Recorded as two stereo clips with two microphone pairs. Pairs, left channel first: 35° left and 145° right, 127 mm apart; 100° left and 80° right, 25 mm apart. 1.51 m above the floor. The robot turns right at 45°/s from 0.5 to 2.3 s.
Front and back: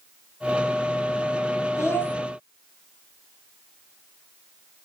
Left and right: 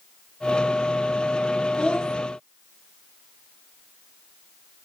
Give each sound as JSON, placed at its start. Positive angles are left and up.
{"t": 1.8, "sound": "a child speaking", "azimuth_deg": 90, "distance_m": 0.7}